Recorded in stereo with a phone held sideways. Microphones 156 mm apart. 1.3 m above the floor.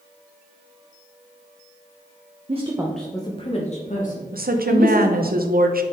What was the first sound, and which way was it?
A woman speaking, 45° right (ahead or behind).